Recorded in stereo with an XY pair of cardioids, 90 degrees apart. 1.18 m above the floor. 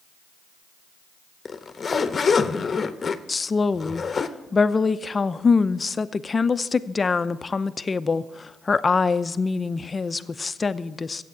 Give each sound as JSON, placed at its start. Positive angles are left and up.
{"t": 1.4, "sound": "a zipper", "azimuth_deg": 40, "distance_m": 0.9}
{"t": 3.3, "sound": "a woman speaking", "azimuth_deg": 30, "distance_m": 0.6}